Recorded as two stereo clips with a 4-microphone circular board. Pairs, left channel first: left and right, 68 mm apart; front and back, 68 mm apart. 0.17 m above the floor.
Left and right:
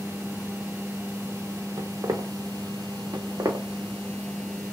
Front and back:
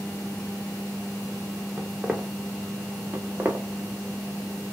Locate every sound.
1.8 s footsteps: 110° right, 0.8 m
3.1 s footsteps: 125° right, 0.8 m